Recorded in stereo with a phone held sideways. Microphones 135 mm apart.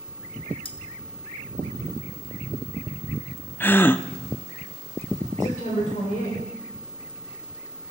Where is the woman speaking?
70° left (ahead or behind), 3.5 m.